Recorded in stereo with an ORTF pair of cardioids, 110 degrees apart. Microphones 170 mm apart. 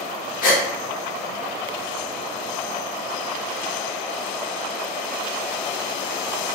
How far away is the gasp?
About 0.8 m.